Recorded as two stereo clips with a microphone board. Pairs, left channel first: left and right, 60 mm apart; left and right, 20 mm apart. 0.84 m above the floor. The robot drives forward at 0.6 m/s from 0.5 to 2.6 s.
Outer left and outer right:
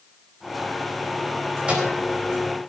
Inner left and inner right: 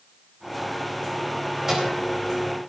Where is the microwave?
20° right (ahead or behind), 4 m.